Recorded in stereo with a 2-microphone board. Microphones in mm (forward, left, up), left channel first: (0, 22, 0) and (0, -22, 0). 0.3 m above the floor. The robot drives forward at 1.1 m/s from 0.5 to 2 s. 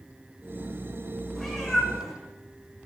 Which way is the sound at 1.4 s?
Centre (ahead or behind).